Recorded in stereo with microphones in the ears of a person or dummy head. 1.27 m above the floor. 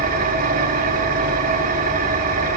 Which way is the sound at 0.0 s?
50° right (ahead or behind).